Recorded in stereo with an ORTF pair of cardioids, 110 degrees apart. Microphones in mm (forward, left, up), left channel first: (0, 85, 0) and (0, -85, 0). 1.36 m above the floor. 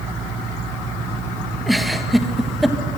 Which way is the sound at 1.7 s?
Straight ahead.